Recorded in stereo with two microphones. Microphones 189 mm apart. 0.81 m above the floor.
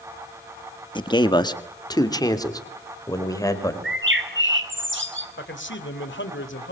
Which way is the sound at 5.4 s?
80° left.